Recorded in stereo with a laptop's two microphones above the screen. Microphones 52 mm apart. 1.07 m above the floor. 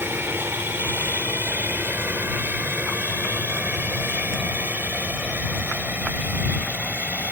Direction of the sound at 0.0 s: 45° right (ahead or behind).